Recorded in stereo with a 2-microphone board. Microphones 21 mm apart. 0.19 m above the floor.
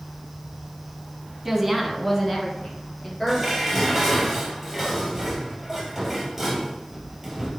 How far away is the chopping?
No chopping in this recording.